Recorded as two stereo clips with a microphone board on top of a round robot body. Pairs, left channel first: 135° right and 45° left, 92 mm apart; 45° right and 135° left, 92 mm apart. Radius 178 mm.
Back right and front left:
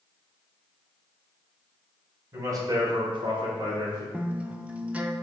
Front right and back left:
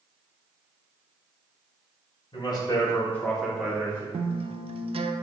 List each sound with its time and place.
2.3 s a man speaking: 10° right, 1.6 m; by 4.0 s 70° left, 1.5 m
4.1 s a guitar: 120° left, 0.5 m